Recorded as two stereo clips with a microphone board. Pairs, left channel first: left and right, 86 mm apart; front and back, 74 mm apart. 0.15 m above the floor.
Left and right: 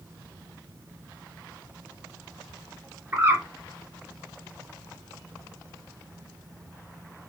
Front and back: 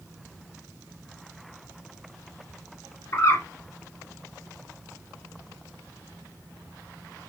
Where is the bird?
35° right, 2.5 m.